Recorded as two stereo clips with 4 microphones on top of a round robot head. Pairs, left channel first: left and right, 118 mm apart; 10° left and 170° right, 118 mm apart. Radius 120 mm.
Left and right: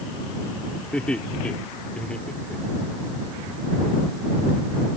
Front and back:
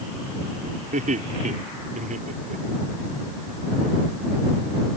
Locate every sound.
0.9 s laughter: 175° left